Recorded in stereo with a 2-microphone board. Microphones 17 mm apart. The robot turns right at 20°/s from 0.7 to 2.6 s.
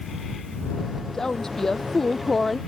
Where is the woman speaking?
35° left (ahead or behind); by 2.6 s 10° left (ahead or behind).